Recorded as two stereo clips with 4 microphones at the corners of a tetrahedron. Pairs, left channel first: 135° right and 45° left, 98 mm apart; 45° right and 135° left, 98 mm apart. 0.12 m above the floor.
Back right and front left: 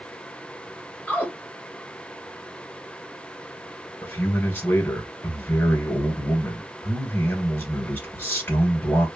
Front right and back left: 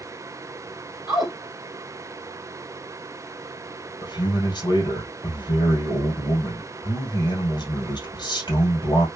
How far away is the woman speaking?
About 2 m.